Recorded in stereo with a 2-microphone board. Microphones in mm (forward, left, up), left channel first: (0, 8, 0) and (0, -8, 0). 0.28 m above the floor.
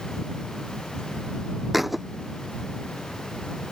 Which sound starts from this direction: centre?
A thud, at 1.7 s.